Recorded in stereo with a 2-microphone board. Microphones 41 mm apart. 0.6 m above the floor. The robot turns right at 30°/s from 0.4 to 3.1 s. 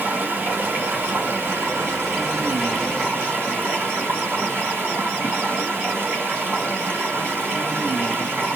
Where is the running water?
135° right, 2.5 m; by 8.6 s 55° right, 2.5 m.